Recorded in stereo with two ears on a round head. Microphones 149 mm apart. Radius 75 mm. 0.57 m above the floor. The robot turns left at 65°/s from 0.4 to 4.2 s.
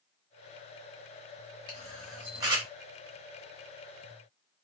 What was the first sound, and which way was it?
A camera shutter, 25° left (ahead or behind).